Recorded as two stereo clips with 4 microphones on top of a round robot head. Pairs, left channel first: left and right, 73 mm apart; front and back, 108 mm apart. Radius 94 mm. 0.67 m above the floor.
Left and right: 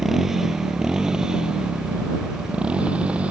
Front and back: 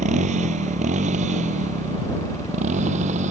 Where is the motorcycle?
175° right; by 3.3 s 165° right.